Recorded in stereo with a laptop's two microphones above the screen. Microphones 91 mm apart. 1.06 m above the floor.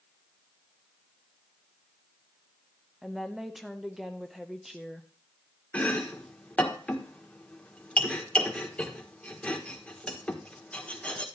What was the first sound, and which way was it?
A woman speaking, 5° right (ahead or behind).